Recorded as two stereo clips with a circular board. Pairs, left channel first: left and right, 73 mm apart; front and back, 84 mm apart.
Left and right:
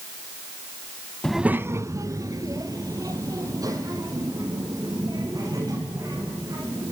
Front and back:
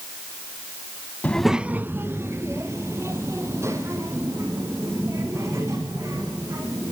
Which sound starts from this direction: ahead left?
A child speaking, at 1.2 s.